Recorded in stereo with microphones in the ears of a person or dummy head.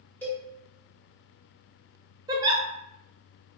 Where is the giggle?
25° right (ahead or behind), 0.7 m.